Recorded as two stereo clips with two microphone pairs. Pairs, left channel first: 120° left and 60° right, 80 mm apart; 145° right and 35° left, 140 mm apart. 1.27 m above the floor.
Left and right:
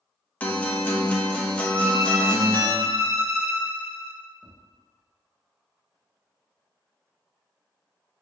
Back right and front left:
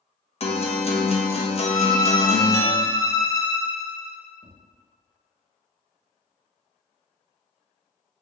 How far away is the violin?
About 0.6 m.